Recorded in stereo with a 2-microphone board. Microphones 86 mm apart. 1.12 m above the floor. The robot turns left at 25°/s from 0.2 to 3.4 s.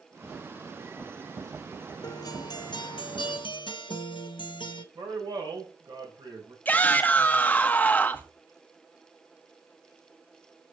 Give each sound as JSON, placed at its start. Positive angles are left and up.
{"t": 2.0, "sound": "a guitar", "azimuth_deg": 130, "distance_m": 0.8}
{"t": 5.0, "sound": "a man speaking", "side_deg": -60, "distance_m": 4.5}
{"t": 6.7, "sound": "a shout", "side_deg": 20, "distance_m": 1.6}